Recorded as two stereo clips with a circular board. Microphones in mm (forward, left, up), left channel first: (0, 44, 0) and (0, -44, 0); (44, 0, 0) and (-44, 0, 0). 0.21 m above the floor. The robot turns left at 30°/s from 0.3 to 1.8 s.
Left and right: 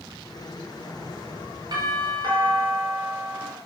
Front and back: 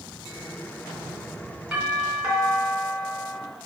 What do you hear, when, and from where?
1.7 s a doorbell: 100° right, 3 m